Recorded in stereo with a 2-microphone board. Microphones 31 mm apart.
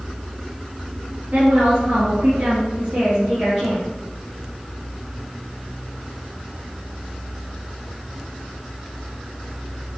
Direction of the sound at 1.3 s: 55° right (ahead or behind).